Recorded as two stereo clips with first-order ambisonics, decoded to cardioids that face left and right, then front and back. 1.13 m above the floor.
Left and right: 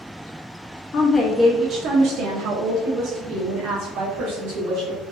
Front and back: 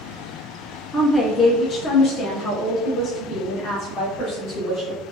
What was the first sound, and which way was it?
A woman speaking, 90° left.